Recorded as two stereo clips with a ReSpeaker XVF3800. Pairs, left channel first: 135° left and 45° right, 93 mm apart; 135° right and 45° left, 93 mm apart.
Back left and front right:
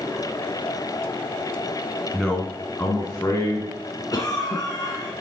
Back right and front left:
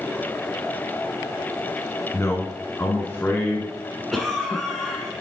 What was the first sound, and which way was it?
A man speaking, 140° right.